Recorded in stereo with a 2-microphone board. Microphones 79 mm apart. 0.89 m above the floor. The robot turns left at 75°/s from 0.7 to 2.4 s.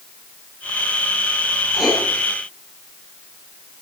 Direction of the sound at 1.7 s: 10° right (ahead or behind).